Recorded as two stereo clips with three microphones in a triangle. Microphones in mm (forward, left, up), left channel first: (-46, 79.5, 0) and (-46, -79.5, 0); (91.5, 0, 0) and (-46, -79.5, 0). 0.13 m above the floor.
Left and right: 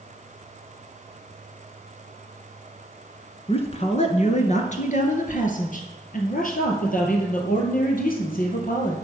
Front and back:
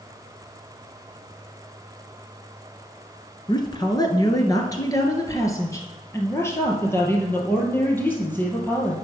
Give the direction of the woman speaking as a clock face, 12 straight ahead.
10 o'clock.